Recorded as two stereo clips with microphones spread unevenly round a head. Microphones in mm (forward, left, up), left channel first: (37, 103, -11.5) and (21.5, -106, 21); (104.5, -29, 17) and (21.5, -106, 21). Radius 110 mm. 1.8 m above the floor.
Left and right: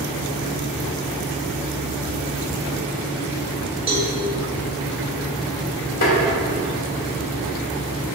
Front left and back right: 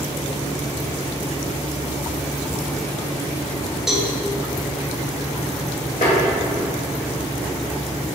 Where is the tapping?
90° left, 1.8 m.